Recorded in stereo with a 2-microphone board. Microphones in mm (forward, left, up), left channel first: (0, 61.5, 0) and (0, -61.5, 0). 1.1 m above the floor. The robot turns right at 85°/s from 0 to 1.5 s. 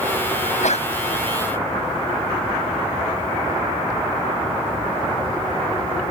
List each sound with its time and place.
0.4 s a sneeze: 90° left; by 0.9 s 130° left